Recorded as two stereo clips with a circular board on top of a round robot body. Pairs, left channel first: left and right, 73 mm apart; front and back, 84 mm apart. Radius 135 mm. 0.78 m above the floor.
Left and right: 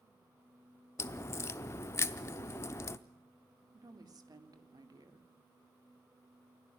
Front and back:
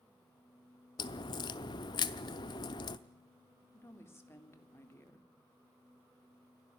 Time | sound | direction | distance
1.0 | a crack | 35° left | 0.6 m
3.7 | a woman speaking | 60° right | 3 m